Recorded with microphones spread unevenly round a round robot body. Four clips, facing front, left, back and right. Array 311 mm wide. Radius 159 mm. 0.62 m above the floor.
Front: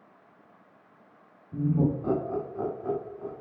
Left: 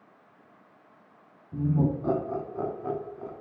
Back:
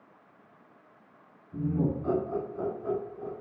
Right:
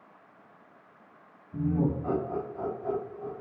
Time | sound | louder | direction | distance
1.5 | laughter | left 1 dB, front 3 dB | 65° left | 1.0 m